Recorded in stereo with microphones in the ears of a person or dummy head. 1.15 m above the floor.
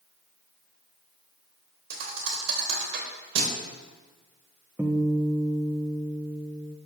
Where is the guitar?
10° right (ahead or behind), 1.0 m.